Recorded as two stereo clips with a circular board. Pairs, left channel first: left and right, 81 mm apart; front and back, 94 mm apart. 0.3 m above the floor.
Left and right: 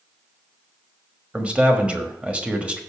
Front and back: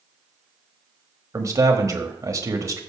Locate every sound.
1.3 s a man speaking: 155° right, 1.1 m